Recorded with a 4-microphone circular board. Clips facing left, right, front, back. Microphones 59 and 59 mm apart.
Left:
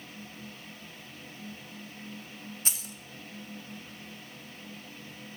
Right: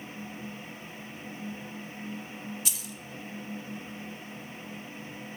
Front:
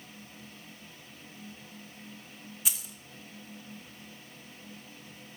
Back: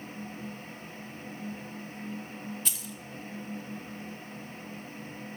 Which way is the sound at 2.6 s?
75° left.